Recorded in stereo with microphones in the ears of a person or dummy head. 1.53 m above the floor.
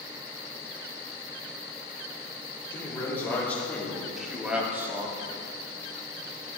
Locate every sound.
2.7 s a man speaking: 15° left (ahead or behind), 3.5 m; by 5.4 s 30° right (ahead or behind), 1.5 m